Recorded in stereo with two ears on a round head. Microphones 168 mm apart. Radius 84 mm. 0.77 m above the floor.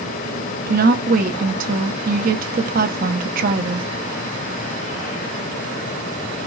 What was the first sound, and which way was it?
A woman speaking, 50° right (ahead or behind).